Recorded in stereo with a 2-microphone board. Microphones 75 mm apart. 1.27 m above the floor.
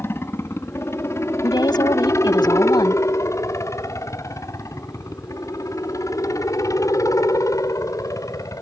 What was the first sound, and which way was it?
A helicopter, 35° left (ahead or behind).